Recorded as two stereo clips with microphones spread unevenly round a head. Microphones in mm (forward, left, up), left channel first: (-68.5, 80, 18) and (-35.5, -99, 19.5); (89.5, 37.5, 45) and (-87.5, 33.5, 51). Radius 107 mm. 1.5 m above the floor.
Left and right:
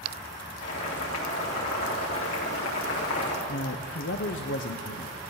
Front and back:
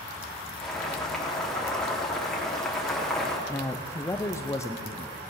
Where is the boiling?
90° left, 4 m.